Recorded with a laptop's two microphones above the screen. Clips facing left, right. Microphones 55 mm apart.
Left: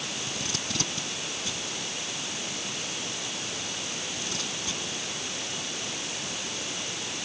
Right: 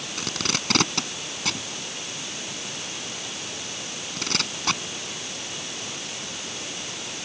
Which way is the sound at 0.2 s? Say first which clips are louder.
Right 5 dB; 80° right.